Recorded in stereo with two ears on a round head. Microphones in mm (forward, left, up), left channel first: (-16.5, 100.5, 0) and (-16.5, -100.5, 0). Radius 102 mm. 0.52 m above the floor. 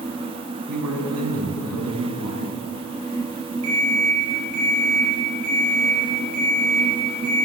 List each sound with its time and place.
0.7 s a man speaking: 75° right (ahead or behind), 6 m
3.6 s an alarm clock: 75° right (ahead or behind), 9.5 m